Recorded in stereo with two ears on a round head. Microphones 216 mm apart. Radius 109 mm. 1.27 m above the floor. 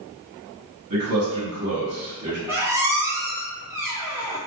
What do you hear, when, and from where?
0.9 s a man speaking: 75° right (ahead or behind), 1.5 m
2.5 s a squeak: 10° right (ahead or behind), 0.6 m